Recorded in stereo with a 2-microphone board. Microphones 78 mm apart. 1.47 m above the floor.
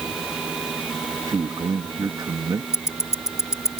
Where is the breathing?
I don't hear breathing.